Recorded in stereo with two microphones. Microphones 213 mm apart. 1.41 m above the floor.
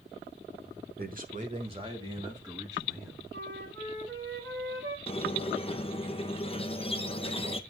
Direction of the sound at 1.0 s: 45° right (ahead or behind).